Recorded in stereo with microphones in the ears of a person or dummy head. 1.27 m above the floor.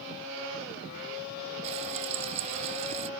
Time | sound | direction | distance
1.6 | frying | 40° right (ahead or behind) | ?